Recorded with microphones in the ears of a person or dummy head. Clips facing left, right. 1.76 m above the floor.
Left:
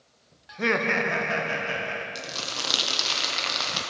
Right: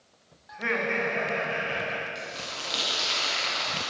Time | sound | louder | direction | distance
0.5 | laughter | left 4 dB | 40° left (ahead or behind) | 0.6 m
2.1 | crumpling | left 2 dB | 65° left (ahead or behind) | 0.9 m